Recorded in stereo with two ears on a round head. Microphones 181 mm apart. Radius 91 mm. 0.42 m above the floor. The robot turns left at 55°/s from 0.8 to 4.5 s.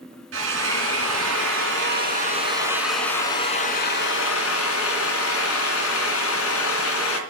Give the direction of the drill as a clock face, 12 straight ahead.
2 o'clock.